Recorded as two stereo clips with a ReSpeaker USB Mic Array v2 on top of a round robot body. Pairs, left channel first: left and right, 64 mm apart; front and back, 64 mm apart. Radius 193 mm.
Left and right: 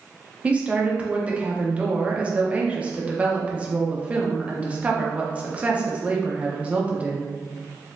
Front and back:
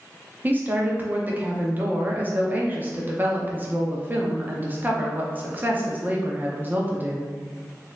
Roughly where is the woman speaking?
Behind right.